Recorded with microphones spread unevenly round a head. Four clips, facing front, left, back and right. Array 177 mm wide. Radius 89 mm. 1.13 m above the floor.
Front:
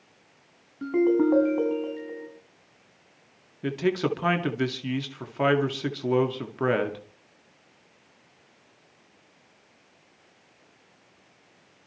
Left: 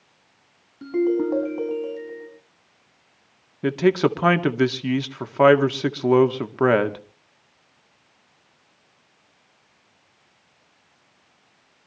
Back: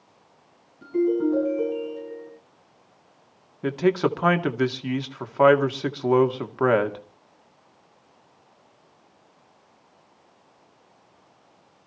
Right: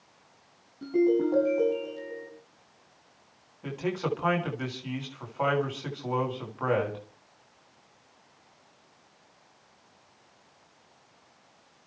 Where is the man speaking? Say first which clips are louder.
Left 12 dB, back 4 dB; 90° left, 2 m.